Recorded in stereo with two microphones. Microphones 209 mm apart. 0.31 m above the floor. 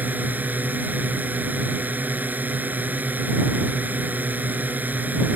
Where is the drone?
10° right (ahead or behind).